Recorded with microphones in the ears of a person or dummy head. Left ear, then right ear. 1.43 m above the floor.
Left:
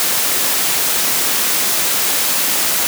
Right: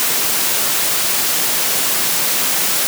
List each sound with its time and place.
Only background noise.